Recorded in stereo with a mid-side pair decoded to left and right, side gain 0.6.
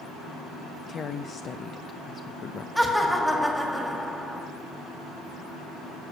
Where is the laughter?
Straight ahead, 1.9 m.